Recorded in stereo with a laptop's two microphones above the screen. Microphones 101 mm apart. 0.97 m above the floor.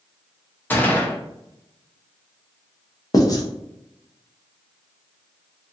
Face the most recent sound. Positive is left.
turn(degrees=35)  # may be behind; listen again after turning